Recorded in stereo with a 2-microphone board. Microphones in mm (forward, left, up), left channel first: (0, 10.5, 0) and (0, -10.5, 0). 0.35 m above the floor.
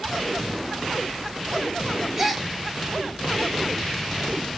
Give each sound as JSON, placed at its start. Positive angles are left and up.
{"t": 2.2, "sound": "a gasp", "side_deg": -10, "distance_m": 1.1}